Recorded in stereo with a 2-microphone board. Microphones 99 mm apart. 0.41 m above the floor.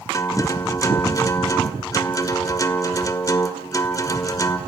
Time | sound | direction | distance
0.1 | a guitar | 35° left (ahead or behind) | 1.6 m